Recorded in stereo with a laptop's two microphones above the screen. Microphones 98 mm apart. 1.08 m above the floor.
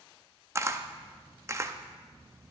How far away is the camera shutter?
About 0.5 m.